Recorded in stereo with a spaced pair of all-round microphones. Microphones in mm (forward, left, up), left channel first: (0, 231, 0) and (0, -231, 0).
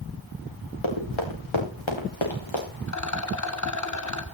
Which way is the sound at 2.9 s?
35° left (ahead or behind).